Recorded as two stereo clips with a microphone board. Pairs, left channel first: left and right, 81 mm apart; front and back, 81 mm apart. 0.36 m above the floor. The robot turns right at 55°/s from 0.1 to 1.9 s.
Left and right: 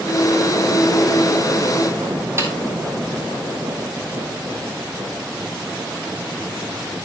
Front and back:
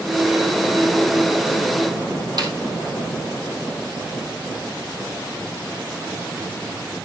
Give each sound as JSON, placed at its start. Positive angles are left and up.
{"t": 2.4, "sound": "a snare drum", "azimuth_deg": -145, "distance_m": 2.5}